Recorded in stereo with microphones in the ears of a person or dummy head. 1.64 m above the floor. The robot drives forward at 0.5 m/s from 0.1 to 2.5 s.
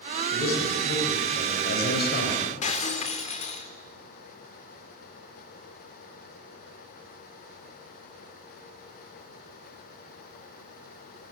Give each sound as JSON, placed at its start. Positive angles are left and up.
{"t": 0.3, "sound": "a man speaking", "side_deg": 60, "distance_m": 9.0}
{"t": 2.6, "sound": "breaking glass", "side_deg": 35, "distance_m": 3.0}